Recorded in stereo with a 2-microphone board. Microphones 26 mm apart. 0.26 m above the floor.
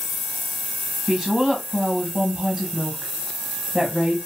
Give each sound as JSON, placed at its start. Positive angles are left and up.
{"t": 1.1, "sound": "a woman speaking", "side_deg": -20, "distance_m": 1.2}